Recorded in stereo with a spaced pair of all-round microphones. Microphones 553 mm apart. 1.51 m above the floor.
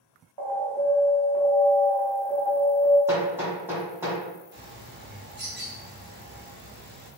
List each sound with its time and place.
0.4 s an alarm: 50° right (ahead or behind), 1.0 m
3.1 s hammering: 5° right (ahead or behind), 1.0 m
4.5 s a bird: 20° right (ahead or behind), 1.0 m